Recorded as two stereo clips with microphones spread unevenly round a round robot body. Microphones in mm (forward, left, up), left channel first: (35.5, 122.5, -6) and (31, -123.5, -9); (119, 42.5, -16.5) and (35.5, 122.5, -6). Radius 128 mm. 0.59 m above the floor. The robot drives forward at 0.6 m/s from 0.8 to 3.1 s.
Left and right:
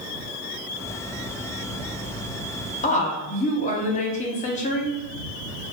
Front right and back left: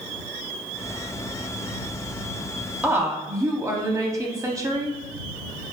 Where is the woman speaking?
65° left, 0.6 m; by 5.0 s 100° left, 0.6 m.